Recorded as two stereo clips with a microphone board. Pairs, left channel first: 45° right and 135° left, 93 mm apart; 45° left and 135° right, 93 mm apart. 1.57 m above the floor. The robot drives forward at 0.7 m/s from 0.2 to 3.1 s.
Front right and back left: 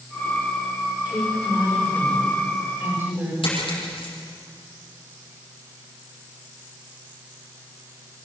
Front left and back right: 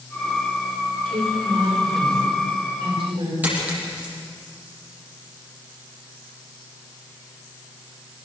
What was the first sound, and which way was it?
A woman speaking, 155° right.